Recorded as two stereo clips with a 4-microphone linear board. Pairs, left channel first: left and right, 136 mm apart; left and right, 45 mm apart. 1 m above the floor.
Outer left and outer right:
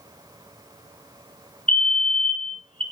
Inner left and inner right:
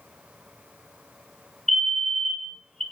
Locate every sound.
1.7 s a fire alarm: 10° left (ahead or behind), 1.4 m